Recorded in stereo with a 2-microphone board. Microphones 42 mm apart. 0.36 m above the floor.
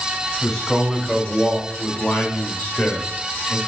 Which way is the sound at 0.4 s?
10° left (ahead or behind).